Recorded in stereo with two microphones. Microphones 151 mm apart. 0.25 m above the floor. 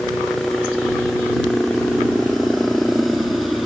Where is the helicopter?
Centre (ahead or behind).